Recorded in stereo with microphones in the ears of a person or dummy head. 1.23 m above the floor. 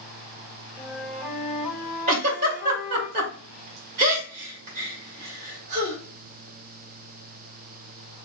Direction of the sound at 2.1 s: 45° right (ahead or behind).